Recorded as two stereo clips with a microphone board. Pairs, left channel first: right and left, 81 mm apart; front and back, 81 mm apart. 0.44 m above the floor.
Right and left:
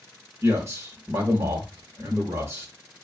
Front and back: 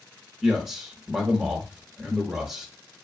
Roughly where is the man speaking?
Left.